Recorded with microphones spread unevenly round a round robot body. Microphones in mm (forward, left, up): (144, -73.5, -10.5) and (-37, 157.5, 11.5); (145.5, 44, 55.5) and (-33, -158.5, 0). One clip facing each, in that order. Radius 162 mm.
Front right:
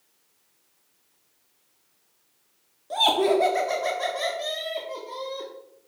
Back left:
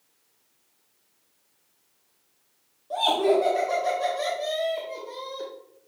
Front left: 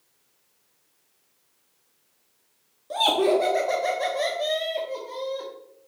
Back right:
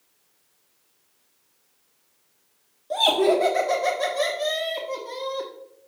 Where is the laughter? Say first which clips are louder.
Even, back right 1 dB; 30° right, 1.3 m; by 5.5 s 115° right, 1.5 m.